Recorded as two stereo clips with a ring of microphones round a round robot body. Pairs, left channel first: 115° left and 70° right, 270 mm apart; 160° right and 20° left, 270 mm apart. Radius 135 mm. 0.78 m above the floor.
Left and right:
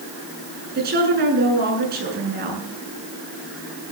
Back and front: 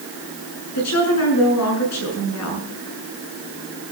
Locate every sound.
0.8 s a woman speaking: 125° right, 8 m